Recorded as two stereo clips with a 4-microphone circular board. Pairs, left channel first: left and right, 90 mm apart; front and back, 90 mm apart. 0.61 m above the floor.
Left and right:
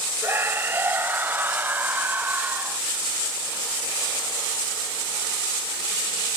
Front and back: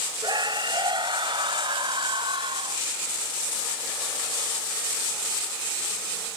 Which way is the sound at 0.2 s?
150° right.